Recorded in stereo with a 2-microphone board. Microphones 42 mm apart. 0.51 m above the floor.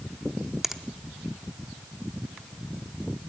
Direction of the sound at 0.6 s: 10° right (ahead or behind).